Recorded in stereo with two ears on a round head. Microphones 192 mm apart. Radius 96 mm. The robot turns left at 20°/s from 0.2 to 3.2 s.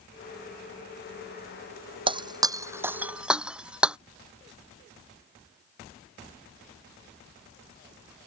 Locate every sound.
2.1 s breaking glass: 25° right (ahead or behind); by 4.0 s 5° right (ahead or behind)